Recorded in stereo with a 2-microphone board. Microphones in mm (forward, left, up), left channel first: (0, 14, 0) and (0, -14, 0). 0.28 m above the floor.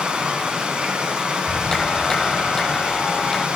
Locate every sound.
0.0 s running water: 40° right (ahead or behind), 1.9 m
1.3 s a clap: 20° left (ahead or behind), 0.8 m